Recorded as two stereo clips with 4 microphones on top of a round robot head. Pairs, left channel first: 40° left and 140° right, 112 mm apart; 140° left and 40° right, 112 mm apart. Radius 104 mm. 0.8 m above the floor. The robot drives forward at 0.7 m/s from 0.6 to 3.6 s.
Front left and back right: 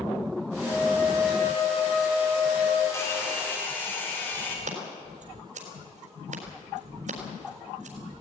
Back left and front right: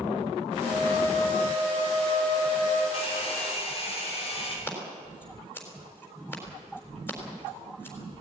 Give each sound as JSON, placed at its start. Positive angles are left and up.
{"t": 0.6, "sound": "a flute", "azimuth_deg": 100, "distance_m": 9.0}
{"t": 2.9, "sound": "a hair dryer", "azimuth_deg": 105, "distance_m": 4.0}
{"t": 4.7, "sound": "scissors", "azimuth_deg": -150, "distance_m": 4.0}